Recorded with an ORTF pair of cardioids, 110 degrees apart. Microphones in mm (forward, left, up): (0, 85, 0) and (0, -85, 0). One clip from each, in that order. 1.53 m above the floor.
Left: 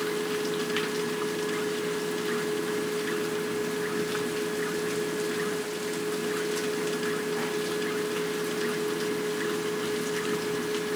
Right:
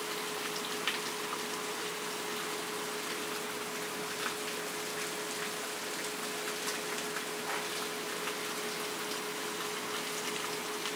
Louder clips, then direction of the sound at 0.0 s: Left 7 dB; 70° left.